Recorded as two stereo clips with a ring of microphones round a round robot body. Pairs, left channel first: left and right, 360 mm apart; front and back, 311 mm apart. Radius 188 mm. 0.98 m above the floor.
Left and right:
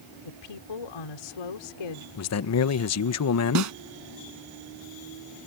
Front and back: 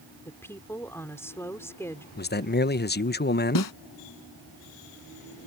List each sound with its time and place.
0.2 s a woman speaking: 80° left
2.2 s a man speaking: 55° left
3.5 s a snare drum: 45° right